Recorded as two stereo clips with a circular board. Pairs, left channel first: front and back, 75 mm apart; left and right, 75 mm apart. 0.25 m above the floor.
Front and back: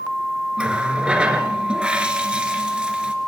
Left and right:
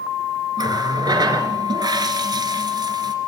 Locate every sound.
0.6 s a running tap: 105° right, 2.5 m